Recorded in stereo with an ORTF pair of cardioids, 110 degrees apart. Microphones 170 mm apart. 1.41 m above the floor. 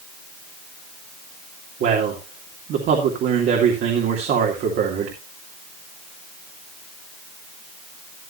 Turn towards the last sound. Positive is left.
turn(degrees=-70)